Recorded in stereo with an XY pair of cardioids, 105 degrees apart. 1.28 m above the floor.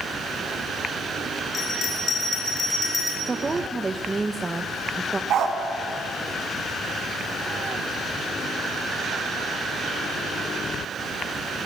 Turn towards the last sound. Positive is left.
turn(degrees=-65)